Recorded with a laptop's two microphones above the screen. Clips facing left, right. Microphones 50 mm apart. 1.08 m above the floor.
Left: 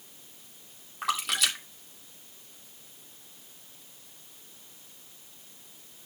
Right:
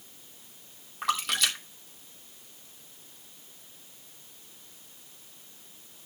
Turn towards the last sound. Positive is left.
turn(degrees=0)  # may be behind; listen again after turning